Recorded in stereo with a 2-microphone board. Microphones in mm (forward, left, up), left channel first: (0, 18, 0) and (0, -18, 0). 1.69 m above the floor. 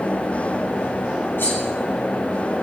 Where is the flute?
I don't hear a flute.